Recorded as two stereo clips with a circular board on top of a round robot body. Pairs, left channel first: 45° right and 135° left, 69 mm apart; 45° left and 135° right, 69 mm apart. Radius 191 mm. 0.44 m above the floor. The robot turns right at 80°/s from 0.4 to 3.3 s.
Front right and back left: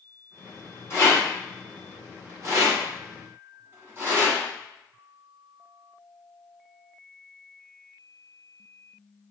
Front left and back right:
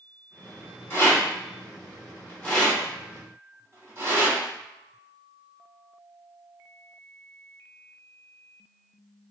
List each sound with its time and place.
0.9 s a rattle: 5° right, 1.9 m; by 4.4 s 175° right, 1.9 m